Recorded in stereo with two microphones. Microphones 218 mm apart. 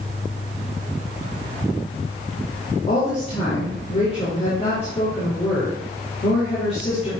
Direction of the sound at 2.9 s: 30° left (ahead or behind).